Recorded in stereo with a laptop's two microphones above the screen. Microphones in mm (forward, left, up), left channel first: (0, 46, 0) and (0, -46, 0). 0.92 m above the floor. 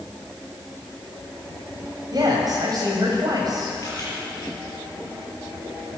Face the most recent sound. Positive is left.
turn(degrees=40)  # may be behind; listen again after turning